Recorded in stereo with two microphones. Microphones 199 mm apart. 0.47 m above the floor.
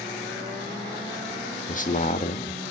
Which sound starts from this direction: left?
A man speaking, at 1.7 s.